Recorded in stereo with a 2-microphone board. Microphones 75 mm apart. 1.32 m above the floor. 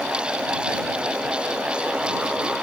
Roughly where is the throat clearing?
I don't hear throat clearing.